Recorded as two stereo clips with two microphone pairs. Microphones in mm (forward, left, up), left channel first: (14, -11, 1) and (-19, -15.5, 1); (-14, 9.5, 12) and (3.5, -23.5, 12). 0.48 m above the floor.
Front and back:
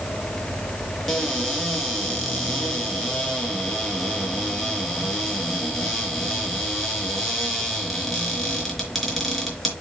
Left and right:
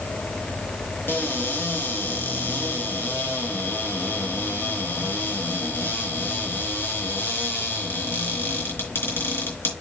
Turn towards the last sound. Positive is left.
turn(degrees=100)